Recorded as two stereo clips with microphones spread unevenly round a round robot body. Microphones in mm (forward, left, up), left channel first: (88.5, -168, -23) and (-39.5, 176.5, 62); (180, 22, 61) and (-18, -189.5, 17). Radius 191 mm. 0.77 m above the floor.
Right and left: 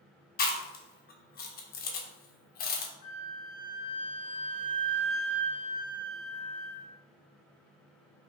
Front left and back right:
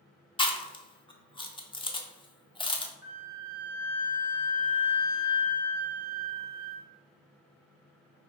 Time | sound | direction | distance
0.4 | chewing | 30° right | 0.6 m
3.0 | a flute | 70° right | 1.1 m